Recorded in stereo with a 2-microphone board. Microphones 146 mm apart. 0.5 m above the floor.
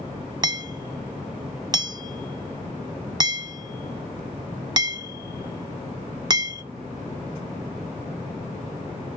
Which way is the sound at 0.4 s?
30° right (ahead or behind).